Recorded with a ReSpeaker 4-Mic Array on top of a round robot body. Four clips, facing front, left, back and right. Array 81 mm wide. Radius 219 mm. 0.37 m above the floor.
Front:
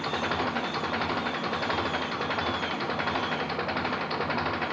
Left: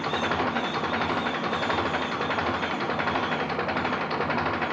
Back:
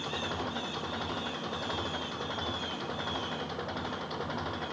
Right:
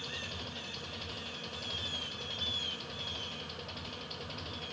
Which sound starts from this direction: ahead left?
An engine running, at 0.0 s.